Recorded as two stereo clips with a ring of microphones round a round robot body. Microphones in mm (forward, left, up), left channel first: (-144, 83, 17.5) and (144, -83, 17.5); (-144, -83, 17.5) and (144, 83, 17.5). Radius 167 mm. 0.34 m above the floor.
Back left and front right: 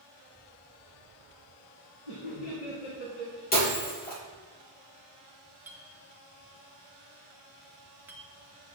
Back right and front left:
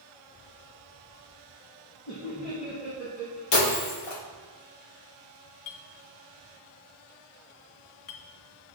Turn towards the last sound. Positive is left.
turn(degrees=-115)